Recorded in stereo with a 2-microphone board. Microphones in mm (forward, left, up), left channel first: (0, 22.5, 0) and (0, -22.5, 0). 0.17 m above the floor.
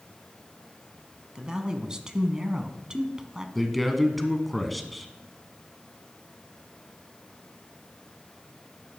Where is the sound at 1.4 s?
15° right (ahead or behind), 1.1 m.